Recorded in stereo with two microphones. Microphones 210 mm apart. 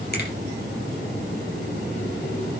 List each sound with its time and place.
0.1 s a finger snap: 50° left (ahead or behind), 5 m